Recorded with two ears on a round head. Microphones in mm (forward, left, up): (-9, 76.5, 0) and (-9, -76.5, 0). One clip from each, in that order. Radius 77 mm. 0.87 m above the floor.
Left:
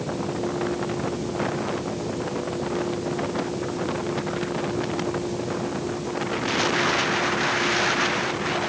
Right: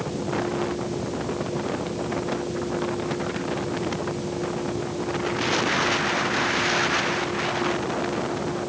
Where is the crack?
No crack in this recording.